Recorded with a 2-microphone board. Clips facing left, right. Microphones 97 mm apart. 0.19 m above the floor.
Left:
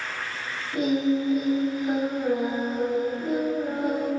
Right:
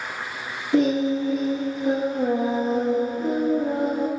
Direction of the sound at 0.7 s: 80° right.